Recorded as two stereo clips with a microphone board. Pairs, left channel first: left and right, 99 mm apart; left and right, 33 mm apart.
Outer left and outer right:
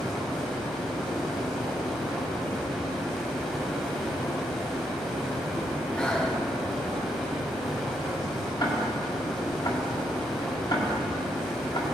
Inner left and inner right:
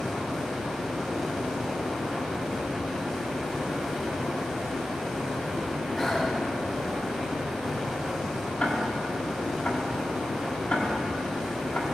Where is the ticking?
50° left (ahead or behind), 1.8 m.